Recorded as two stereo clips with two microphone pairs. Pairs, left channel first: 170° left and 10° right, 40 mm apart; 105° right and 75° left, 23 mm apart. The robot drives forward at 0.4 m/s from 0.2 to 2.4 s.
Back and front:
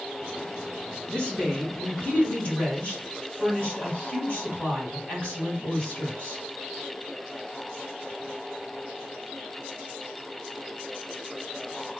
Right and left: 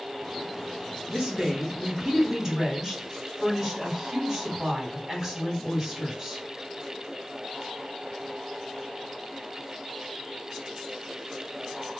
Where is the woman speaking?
130° left, 1.9 m; by 6.4 s 145° left, 2 m.